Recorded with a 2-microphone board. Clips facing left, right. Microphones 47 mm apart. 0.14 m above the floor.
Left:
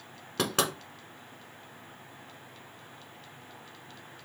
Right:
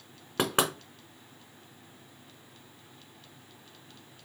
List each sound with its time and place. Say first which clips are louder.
0.4 s knocking: right 2 dB; 25° right (ahead or behind), 1.0 m